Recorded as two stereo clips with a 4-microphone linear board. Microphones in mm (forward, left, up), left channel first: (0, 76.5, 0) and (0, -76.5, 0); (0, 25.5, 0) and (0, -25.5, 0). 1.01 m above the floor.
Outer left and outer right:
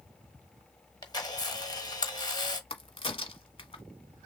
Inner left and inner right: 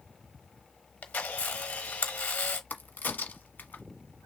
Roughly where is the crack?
Left.